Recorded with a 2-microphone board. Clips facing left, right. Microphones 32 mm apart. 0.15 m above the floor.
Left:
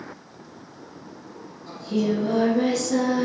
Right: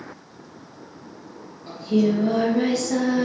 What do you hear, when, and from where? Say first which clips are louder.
1.7 s singing: right 4 dB; 45° right (ahead or behind), 1.6 m